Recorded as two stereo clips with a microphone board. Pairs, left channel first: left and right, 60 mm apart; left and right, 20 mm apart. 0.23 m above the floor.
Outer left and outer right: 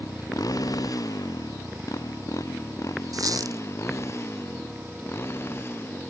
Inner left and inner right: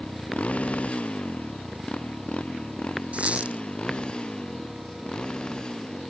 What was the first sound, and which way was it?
A motorcycle, 80° left.